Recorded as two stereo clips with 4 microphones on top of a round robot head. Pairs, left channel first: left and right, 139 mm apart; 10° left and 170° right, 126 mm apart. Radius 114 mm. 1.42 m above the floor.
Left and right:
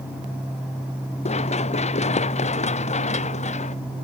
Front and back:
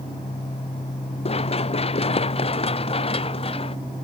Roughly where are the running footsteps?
Ahead left.